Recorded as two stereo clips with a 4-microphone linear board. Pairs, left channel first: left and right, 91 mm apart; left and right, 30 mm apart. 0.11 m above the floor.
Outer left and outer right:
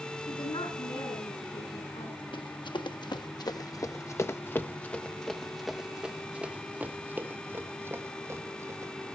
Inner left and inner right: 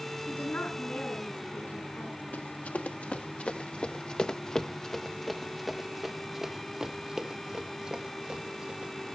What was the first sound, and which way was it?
A woman speaking, 80° left.